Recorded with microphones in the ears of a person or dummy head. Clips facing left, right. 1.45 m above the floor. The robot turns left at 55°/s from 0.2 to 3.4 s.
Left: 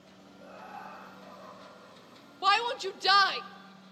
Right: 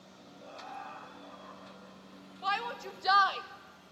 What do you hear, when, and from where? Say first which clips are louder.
0.4 s laughter: even; 160° left, 8.5 m; by 2.3 s 55° left, 8.5 m
2.4 s a shout: left 7 dB; 80° left, 0.8 m; by 3.4 s 30° left, 0.8 m